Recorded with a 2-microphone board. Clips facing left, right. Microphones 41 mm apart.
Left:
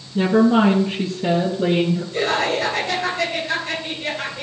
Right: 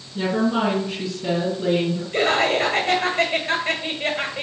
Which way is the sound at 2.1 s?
50° right (ahead or behind).